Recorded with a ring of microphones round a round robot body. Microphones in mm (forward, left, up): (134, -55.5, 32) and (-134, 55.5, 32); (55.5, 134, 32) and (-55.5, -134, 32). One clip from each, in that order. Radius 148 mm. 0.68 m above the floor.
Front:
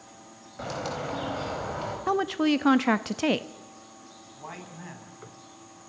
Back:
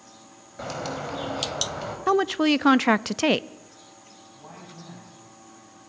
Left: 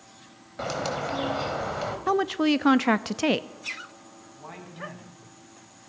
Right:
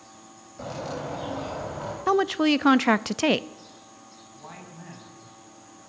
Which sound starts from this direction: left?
A bird, at 0.6 s.